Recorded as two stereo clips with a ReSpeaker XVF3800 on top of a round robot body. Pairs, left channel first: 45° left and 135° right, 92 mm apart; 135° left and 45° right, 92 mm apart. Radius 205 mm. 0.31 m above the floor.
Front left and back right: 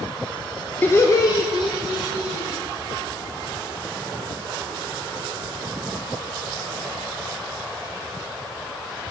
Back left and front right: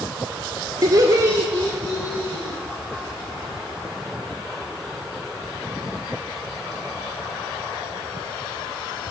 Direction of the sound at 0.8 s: 20° right.